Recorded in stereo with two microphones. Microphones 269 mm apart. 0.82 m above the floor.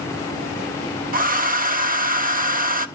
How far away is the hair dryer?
About 1.1 m.